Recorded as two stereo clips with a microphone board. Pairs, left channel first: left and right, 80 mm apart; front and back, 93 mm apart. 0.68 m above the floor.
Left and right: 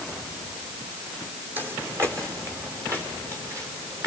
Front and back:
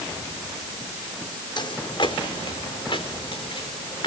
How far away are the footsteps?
About 1.4 m.